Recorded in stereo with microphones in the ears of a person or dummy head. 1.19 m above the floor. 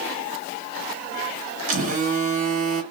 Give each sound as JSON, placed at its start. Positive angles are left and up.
{"t": 1.7, "sound": "a phone buzzing", "side_deg": -40, "distance_m": 0.7}